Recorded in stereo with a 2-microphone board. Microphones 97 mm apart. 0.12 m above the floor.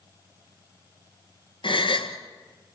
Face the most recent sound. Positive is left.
turn(degrees=60)  # may be behind; listen again after turning